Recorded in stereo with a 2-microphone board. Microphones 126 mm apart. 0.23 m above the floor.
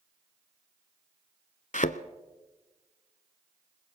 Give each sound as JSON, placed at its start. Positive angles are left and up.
{"t": 1.7, "sound": "a thud", "side_deg": 80, "distance_m": 0.5}